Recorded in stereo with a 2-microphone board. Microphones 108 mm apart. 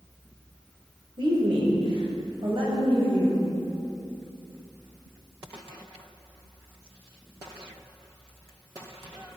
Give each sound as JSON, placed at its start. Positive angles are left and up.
{"t": 1.2, "sound": "a woman speaking", "side_deg": -45, "distance_m": 1.3}